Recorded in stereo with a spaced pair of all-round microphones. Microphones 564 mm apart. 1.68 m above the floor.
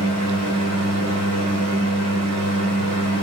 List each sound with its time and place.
0.0 s a fan: 30° right (ahead or behind), 0.8 m